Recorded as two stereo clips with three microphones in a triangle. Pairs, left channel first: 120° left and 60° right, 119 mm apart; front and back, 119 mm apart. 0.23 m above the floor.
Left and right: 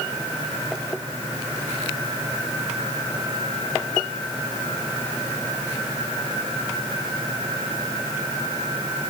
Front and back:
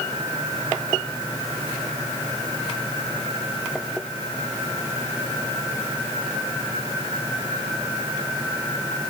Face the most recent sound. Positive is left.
No sound to turn to.